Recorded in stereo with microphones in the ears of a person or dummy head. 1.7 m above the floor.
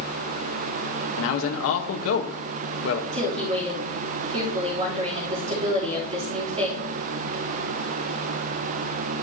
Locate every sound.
1.2 s a man speaking: 85° left, 1.3 m
3.1 s a woman speaking: 35° right (ahead or behind), 3.5 m